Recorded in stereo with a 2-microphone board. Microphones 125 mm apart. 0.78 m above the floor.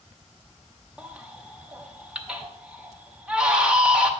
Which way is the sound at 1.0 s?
10° right (ahead or behind).